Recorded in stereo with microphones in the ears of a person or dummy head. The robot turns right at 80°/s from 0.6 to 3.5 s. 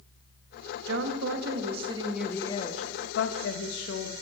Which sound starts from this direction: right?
A woman speaking, at 0.9 s.